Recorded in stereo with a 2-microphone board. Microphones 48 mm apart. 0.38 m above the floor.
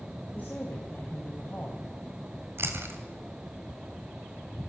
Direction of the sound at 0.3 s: 35° left (ahead or behind).